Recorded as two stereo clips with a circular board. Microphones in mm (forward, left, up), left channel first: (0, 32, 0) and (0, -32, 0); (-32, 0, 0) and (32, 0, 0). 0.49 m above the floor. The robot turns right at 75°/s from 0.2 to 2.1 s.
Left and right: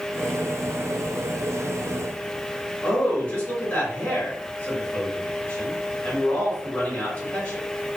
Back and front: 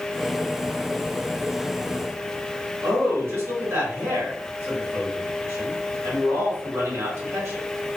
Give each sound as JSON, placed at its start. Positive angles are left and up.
{"t": 2.8, "sound": "a man speaking", "azimuth_deg": 35, "distance_m": 1.4}